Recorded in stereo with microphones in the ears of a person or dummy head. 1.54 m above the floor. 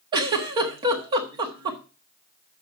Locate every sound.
0.1 s a giggle: 25° right (ahead or behind), 1.4 m